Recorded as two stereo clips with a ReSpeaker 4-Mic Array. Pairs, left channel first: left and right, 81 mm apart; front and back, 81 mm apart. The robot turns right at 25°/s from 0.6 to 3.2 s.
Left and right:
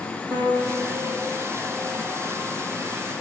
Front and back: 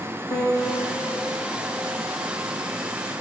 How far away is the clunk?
No clunk in this recording.